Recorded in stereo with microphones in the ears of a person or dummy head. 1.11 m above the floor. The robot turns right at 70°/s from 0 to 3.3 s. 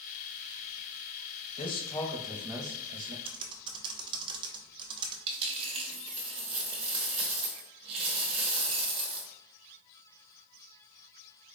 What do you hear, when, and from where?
1.6 s a man speaking: 130° left, 0.7 m; by 3.1 s 120° right, 0.7 m
3.2 s typing on a keyboard: 25° right (ahead or behind), 0.5 m
5.3 s a dropped coin: 35° right (ahead or behind), 0.8 m